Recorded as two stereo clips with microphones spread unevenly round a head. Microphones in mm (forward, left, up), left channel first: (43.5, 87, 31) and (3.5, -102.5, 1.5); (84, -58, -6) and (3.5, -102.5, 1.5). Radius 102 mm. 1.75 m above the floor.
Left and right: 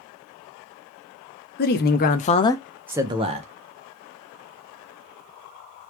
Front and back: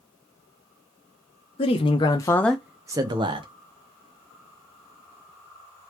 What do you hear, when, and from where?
1.6 s a man speaking: 55° left, 0.9 m; by 3.5 s 165° right, 0.9 m